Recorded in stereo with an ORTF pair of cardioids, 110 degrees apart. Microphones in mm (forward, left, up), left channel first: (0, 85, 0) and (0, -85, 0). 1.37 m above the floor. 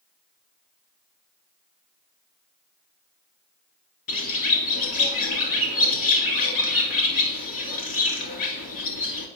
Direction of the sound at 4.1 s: 60° left.